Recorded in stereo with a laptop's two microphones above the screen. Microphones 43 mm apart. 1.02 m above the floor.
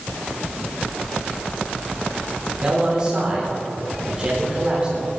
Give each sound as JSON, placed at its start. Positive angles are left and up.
{"t": 2.4, "sound": "a man speaking", "side_deg": -20, "distance_m": 3.5}